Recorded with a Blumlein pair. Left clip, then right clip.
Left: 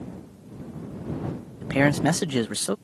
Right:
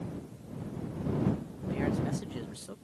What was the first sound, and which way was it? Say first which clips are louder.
A man speaking: left 12 dB; 40° left.